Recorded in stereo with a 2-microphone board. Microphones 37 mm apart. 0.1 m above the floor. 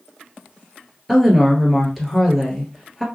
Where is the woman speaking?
Centre (ahead or behind), 1.6 m.